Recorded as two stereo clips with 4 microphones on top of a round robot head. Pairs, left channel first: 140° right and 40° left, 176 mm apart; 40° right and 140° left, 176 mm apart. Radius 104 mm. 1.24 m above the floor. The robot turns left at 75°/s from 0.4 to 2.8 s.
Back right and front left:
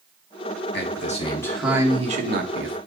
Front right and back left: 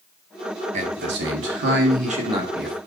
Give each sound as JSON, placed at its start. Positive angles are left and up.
{"t": 0.7, "sound": "a man speaking", "azimuth_deg": -165, "distance_m": 1.8}